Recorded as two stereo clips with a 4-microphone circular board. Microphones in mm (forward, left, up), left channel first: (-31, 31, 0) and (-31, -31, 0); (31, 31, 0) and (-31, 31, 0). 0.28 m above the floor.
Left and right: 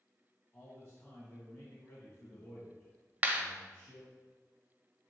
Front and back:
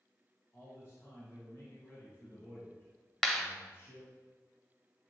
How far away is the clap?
About 0.7 m.